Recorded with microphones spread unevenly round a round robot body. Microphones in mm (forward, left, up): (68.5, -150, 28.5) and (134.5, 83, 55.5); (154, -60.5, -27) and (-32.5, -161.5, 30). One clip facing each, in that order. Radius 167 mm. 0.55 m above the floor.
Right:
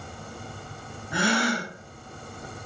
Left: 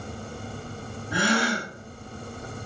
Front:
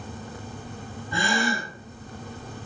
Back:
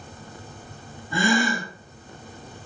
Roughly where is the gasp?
Behind.